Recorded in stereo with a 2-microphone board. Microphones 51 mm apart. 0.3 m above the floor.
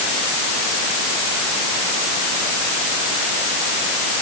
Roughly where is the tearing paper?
I don't hear tearing paper.